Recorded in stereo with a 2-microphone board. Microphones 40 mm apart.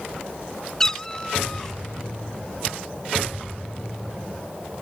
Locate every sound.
0.8 s a cat meowing: 15° left (ahead or behind)